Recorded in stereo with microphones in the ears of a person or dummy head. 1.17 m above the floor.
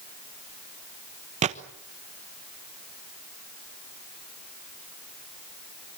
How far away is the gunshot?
About 1.1 m.